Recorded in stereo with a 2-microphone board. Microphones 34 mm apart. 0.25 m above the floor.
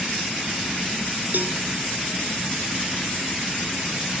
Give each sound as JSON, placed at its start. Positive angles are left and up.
{"t": 1.3, "sound": "a cowbell", "side_deg": -65}